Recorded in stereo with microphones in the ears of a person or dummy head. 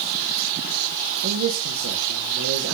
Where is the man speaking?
70° right (ahead or behind), 1.0 m.